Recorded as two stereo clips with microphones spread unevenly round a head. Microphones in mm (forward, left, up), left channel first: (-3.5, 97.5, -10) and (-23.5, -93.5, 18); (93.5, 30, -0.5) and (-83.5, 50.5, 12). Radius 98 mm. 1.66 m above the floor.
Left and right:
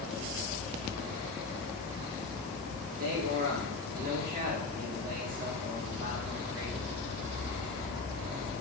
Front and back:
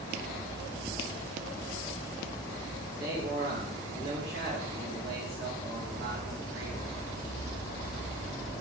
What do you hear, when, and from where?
2.9 s a man speaking: 140° right, 2.5 m